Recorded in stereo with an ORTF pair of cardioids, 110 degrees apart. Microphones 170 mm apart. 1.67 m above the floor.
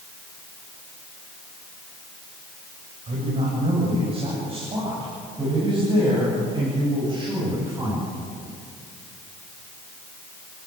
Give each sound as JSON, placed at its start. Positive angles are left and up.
{"t": 3.1, "sound": "a woman speaking", "azimuth_deg": -40, "distance_m": 8.0}